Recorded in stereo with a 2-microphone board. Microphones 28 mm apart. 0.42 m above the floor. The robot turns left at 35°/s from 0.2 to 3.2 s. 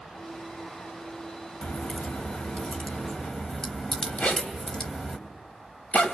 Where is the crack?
65° left (ahead or behind), 2.5 m; by 5.2 s 30° left (ahead or behind), 2.5 m.